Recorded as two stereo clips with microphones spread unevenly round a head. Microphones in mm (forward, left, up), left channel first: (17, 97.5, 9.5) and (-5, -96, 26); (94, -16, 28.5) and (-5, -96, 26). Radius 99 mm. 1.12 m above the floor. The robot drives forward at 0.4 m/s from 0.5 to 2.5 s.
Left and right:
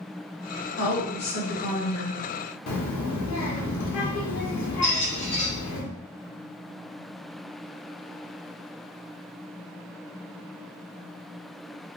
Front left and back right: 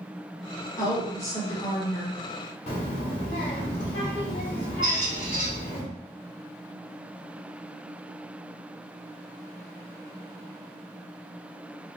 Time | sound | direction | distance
0.8 | a woman speaking | 105° left | 1.2 m
2.7 | a child speaking | 90° left | 0.9 m
4.8 | a squeak | 135° left | 1.6 m